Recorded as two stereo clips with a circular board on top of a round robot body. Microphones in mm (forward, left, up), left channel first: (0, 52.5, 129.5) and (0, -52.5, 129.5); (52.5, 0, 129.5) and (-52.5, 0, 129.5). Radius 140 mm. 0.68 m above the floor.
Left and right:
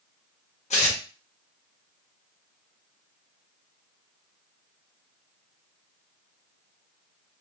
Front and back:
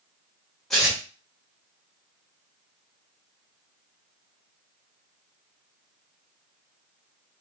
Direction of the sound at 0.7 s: 85° left.